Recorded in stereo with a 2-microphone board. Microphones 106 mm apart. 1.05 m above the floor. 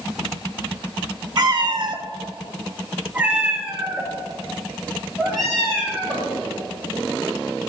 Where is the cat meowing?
45° right (ahead or behind), 0.7 m; by 6.3 s 5° left (ahead or behind), 3 m.